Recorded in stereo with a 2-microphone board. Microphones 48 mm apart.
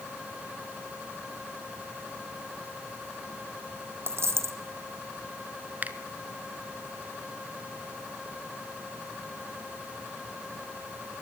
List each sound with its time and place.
4.1 s a dropped coin: 55° right (ahead or behind), 1.9 m
5.8 s a finger snap: 35° right (ahead or behind), 1.4 m